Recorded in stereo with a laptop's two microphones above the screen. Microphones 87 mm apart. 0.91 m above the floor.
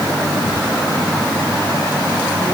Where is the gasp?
I don't hear a gasp.